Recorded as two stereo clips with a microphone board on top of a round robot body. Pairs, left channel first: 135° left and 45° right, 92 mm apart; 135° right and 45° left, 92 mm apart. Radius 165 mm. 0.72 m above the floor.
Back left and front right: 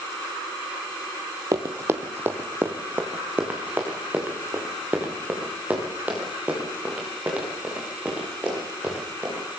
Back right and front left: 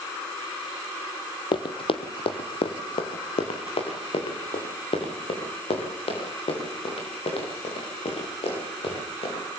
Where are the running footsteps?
100° right, 1.3 m; by 9.4 s 120° right, 12.5 m.